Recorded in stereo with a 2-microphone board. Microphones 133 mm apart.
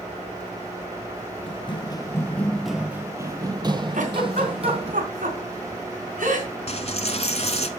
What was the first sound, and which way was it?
Running footsteps, 40° left (ahead or behind).